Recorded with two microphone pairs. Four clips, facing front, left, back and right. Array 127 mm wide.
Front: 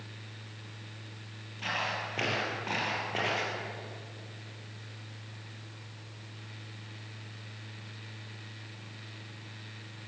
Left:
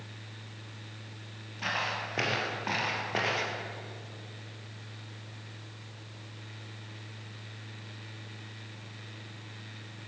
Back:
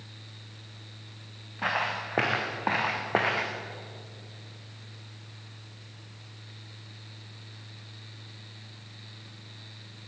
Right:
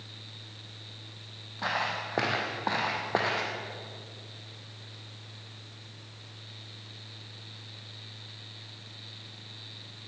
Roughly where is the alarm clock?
I don't hear an alarm clock.